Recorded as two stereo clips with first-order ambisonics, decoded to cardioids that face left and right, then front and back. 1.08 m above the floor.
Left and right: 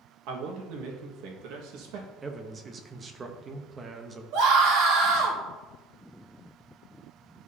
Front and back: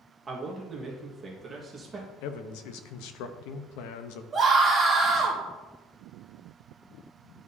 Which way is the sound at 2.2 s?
20° right.